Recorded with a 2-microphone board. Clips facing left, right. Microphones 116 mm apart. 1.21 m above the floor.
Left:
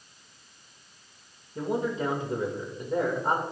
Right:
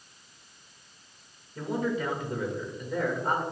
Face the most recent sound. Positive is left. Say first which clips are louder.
# left 1 dB
turn(degrees=25)  # may be behind; listen again after turning